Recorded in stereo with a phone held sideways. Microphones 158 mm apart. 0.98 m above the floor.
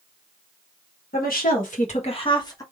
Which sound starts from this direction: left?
A woman speaking, at 1.1 s.